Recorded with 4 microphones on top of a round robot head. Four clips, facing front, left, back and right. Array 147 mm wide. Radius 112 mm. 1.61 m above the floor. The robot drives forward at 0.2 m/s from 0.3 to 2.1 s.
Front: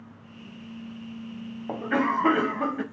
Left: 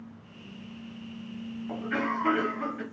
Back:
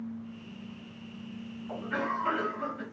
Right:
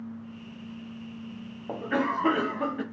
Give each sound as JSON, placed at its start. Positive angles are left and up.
{"t": 1.7, "sound": "a cough", "azimuth_deg": -25, "distance_m": 0.7}